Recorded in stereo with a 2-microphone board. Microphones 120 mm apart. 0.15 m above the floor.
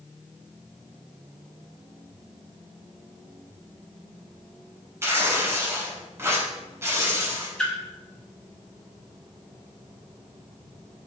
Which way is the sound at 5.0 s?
20° right (ahead or behind).